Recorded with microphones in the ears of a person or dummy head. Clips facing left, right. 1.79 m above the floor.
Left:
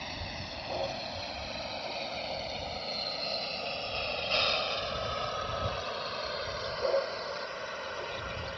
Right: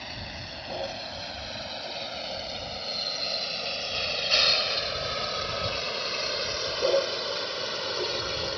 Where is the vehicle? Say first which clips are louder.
Even; 5° right (ahead or behind); by 8.6 s 65° right (ahead or behind).